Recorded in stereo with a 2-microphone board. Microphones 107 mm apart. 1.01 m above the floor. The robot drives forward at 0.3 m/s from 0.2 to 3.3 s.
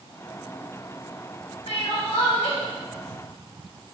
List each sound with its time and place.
1.7 s crying: 80° left, 1.6 m; by 2.6 s 75° left (ahead or behind), 1.6 m